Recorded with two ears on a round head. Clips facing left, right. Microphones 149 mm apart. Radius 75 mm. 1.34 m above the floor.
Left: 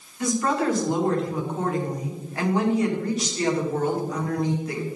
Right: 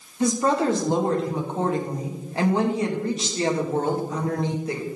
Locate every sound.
0.2 s a woman speaking: 25° right (ahead or behind), 2.0 m